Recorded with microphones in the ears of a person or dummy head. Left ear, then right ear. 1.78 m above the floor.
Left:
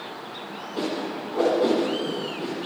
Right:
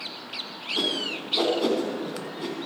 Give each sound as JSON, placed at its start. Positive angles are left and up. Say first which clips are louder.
{"t": 0.8, "sound": "a whoosh", "louder": "right 2 dB", "side_deg": -25, "distance_m": 2.5}